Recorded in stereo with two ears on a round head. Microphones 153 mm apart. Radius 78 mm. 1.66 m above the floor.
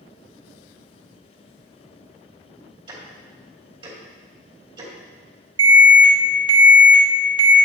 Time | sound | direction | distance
2.9 | ticking | 35° right (ahead or behind) | 2 m
5.6 | an alarm | 30° right (ahead or behind) | 1.3 m